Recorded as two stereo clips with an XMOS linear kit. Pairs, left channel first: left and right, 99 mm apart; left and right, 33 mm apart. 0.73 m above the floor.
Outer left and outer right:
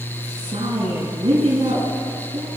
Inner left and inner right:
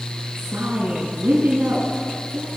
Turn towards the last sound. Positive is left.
turn(degrees=-80)